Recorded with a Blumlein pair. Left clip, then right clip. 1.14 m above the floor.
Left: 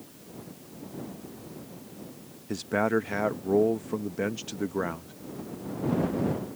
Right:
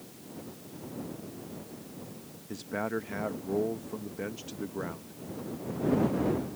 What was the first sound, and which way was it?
A man speaking, 20° left.